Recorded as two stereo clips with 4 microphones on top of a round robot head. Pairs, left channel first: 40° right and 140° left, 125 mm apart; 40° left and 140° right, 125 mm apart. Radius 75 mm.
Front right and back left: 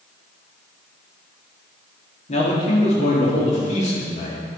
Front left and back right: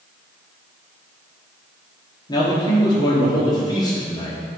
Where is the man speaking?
15° right, 1.7 m.